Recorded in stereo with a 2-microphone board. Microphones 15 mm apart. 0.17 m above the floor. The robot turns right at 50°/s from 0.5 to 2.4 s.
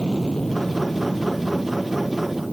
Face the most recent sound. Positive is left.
turn(degrees=-35)  # may be behind; listen again after turning